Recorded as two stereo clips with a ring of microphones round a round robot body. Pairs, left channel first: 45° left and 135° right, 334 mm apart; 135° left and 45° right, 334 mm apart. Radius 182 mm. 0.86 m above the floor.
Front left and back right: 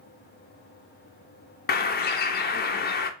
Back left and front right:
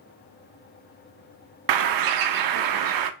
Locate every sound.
1.7 s a bird: 20° right, 0.5 m